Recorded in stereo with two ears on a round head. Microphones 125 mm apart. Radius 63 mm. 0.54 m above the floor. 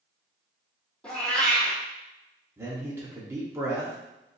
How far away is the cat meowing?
About 1.9 m.